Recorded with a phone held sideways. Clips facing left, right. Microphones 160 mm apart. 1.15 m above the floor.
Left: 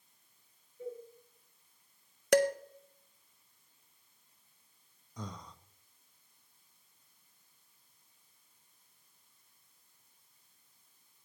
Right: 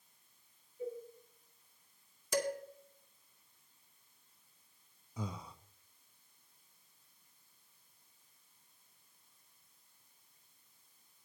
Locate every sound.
0.8 s a cowbell: centre (ahead or behind), 7 m
2.3 s dishes clattering: 75° left (ahead or behind), 0.7 m
5.2 s breathing: 5° right (ahead or behind), 0.6 m